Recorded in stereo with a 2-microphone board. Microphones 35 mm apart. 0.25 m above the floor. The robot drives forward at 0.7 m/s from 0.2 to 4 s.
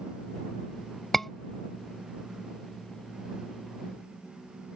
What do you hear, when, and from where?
1.1 s a scream: 5° left (ahead or behind)